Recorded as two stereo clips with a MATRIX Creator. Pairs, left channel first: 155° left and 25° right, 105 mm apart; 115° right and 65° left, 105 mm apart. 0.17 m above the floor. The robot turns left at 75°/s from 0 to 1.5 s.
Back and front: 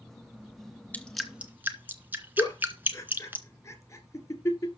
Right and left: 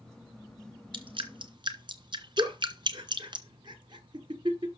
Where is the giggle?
100° left, 2.5 m.